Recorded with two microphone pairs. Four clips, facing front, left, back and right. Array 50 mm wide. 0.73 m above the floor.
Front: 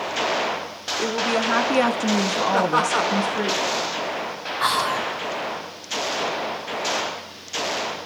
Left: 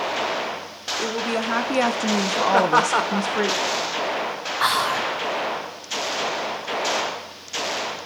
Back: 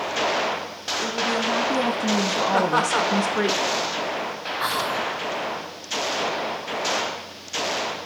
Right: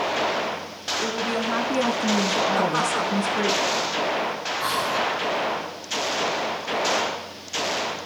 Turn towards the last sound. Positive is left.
turn(degrees=80)